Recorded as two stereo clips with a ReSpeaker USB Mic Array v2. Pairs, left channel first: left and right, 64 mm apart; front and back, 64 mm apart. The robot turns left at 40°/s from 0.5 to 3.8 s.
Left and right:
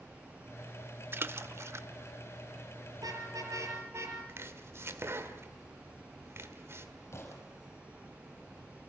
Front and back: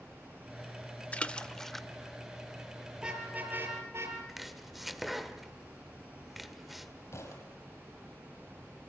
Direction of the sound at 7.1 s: 40° left.